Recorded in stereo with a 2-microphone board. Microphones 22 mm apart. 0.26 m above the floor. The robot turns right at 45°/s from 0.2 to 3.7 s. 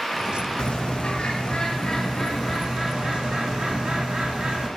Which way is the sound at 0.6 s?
105° left.